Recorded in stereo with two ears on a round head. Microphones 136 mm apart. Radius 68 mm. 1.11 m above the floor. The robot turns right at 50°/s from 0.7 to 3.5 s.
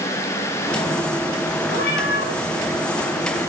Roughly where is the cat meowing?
Ahead left.